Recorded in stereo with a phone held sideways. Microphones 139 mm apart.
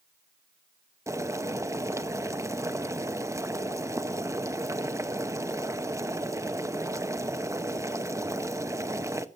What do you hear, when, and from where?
1.1 s boiling: 25° right (ahead or behind), 0.7 m